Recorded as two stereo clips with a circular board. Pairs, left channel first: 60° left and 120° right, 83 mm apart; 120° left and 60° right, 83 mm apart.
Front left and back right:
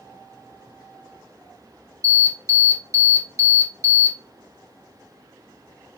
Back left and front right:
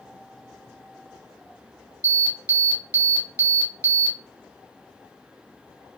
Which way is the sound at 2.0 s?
110° right.